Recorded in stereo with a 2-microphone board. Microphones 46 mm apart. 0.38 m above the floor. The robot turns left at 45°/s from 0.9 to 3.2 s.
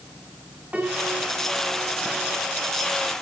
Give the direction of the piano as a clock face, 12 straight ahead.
1 o'clock.